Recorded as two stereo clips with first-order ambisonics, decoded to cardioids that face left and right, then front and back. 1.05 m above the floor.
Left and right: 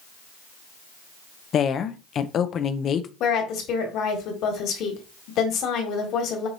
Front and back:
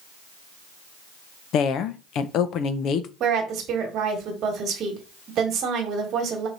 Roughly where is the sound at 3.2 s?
Behind left.